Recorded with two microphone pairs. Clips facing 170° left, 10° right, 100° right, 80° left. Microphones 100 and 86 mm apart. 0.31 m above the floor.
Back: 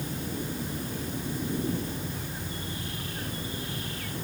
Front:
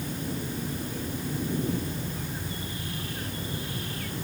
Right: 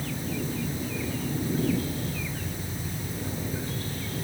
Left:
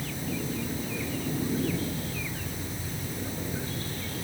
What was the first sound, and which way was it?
Only background noise.